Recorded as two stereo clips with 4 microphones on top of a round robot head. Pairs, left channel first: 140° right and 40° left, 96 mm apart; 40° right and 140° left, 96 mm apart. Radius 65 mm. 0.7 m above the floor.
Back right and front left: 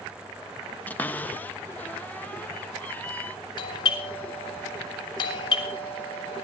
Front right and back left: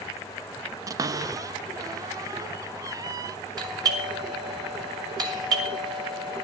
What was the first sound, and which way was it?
A cupboard door, 160° left.